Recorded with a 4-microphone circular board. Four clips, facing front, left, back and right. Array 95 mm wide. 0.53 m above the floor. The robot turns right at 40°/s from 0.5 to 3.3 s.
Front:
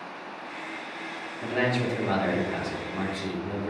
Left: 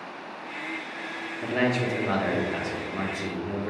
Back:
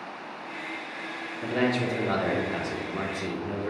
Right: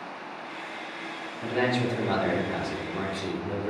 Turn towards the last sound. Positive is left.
turn(degrees=145)